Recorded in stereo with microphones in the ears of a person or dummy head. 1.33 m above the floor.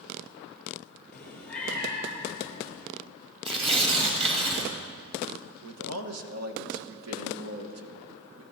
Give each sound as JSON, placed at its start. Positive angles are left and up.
{"t": 1.1, "sound": "a cat meowing", "side_deg": 5, "distance_m": 2.5}
{"t": 3.5, "sound": "tearing paper", "side_deg": -30, "distance_m": 2.5}
{"t": 5.6, "sound": "a man speaking", "side_deg": -85, "distance_m": 1.2}